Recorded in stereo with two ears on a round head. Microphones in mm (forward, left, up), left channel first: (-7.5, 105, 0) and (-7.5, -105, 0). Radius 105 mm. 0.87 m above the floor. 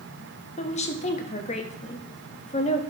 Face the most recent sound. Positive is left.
turn(degrees=30)  # may be behind; listen again after turning